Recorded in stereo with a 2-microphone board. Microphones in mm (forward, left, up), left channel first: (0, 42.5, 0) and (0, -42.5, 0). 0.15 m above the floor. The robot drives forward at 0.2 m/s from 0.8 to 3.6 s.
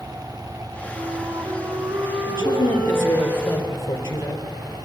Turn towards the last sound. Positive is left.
turn(degrees=35)  # may be behind; listen again after turning